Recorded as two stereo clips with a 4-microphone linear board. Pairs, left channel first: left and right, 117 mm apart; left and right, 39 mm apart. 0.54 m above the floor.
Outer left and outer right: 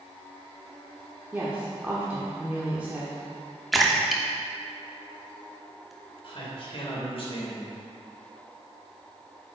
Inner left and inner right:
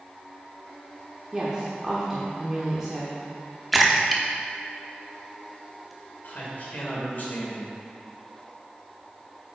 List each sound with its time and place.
1.3 s a woman speaking: 15° right (ahead or behind), 1.1 m
3.7 s a splash: centre (ahead or behind), 0.9 m
6.2 s a man speaking: 55° left (ahead or behind), 2.5 m